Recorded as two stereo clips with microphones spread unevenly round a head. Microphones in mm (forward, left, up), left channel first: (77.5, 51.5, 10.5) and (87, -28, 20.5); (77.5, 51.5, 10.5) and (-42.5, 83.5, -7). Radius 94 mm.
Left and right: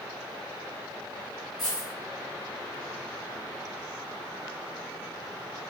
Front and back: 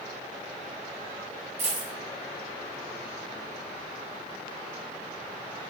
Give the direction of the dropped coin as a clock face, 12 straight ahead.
6 o'clock.